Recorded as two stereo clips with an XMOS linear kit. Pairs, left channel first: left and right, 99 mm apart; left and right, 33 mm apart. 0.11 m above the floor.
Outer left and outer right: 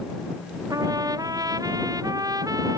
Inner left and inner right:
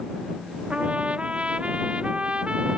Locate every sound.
0.7 s a trumpet: 40° right (ahead or behind)